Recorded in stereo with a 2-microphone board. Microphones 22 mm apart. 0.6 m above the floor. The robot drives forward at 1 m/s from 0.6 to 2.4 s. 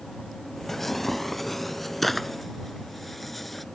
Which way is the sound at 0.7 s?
10° left (ahead or behind).